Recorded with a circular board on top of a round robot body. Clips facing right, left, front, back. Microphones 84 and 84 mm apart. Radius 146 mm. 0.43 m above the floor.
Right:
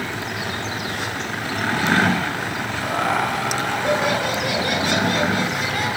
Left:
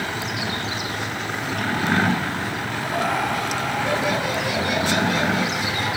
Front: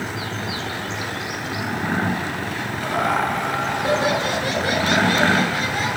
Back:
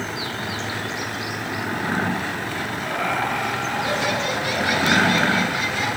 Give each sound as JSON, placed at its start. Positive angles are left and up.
{"t": 2.8, "sound": "laughter", "azimuth_deg": -55, "distance_m": 8.0}